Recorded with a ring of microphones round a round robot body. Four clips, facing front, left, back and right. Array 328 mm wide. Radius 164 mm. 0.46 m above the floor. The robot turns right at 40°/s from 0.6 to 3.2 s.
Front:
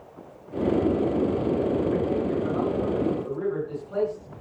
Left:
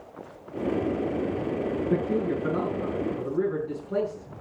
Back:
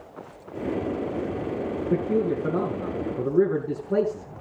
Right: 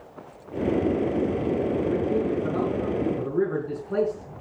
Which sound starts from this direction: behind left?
A man speaking, at 1.9 s.